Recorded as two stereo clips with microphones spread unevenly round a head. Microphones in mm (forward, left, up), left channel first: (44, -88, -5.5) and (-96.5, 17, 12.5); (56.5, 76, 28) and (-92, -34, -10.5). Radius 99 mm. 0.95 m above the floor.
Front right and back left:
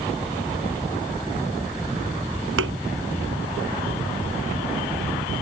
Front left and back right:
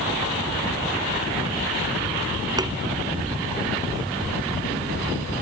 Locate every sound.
2.6 s a thud: 145° left